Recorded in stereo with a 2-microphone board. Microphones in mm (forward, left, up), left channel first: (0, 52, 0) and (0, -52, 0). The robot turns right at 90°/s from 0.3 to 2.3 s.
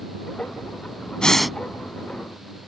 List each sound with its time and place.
1.2 s breathing: 10° left (ahead or behind); by 1.6 s 5° right (ahead or behind)